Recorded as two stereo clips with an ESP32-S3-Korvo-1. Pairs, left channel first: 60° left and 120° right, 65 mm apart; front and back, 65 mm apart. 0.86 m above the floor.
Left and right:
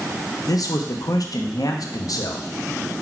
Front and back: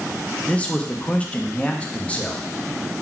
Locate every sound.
0.5 s a man speaking: 70° left, 0.6 m